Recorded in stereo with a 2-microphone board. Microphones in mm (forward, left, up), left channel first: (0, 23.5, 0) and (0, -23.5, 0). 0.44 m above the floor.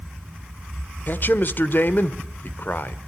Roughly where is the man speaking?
Left.